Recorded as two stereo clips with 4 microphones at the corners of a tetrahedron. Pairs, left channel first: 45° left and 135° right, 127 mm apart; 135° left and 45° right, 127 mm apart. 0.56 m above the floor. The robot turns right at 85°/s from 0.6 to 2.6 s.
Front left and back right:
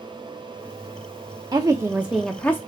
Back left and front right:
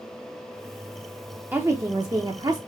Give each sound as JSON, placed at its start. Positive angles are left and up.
{"t": 1.5, "sound": "a woman speaking", "azimuth_deg": -105, "distance_m": 0.7}